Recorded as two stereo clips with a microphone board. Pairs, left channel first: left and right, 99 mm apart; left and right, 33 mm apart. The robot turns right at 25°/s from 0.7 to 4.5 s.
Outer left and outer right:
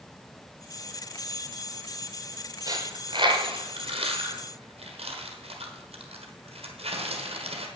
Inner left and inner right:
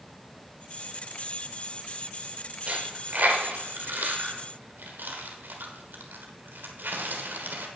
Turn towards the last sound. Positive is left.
turn(degrees=-85)